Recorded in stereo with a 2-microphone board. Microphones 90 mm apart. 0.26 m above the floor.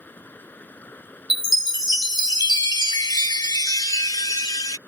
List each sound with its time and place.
0.0 s running water: 20° left (ahead or behind)
1.3 s a chime: 45° left (ahead or behind)